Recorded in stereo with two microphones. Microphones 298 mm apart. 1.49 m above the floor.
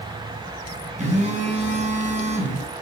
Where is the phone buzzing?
25° right (ahead or behind), 9 m.